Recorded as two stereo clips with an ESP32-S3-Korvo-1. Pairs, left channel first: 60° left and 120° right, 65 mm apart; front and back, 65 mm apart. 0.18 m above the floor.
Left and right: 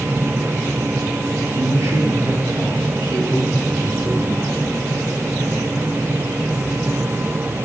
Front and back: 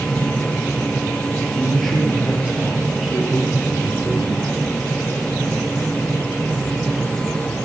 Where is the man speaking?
80° right, 5 m; by 4.5 s 110° right, 4 m.